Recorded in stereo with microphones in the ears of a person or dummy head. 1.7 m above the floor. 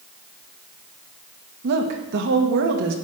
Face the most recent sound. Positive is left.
turn(degrees=-60)  # may be behind; listen again after turning